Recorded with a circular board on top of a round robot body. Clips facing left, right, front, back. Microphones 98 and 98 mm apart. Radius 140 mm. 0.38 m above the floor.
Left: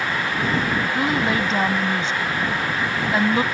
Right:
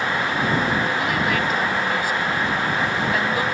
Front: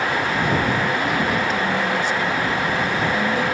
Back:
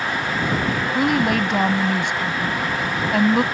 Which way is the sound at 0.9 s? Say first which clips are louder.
Left 1 dB, back 2 dB; 155° left.